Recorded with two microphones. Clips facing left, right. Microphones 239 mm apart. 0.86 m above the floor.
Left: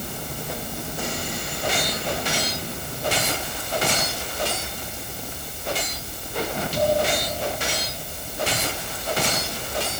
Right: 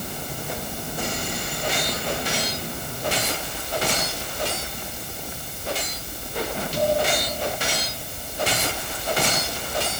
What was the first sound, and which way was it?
Only background noise.